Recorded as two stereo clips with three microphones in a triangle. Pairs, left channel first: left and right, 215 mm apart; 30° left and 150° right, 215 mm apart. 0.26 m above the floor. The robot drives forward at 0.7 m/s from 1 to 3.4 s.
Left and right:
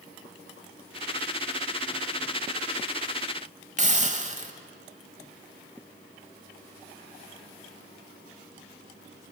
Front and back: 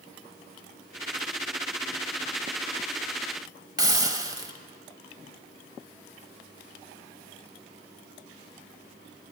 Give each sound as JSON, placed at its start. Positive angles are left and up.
{"t": 3.8, "sound": "a hiss", "azimuth_deg": -90, "distance_m": 0.9}